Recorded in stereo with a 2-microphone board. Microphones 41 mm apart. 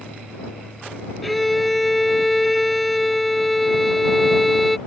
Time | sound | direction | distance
1.2 | a violin | 5° left (ahead or behind) | ?